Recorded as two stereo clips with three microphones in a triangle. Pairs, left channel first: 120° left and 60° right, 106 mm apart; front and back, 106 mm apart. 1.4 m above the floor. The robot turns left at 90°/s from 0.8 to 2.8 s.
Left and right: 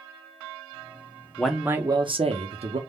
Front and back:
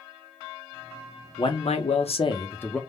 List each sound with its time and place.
1.4 s a man speaking: 40° left, 0.7 m; by 2.8 s 85° right, 0.7 m